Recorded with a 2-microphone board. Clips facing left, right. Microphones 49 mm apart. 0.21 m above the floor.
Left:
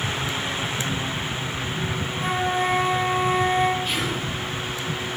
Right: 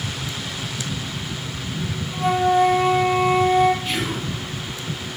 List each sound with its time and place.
2.1 s a flute: 40° right (ahead or behind), 0.9 m
3.9 s whispering: 70° right (ahead or behind), 4.5 m